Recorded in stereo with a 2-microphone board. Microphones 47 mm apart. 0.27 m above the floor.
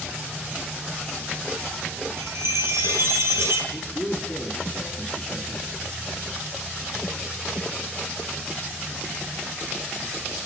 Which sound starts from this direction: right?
A chime, at 2.2 s.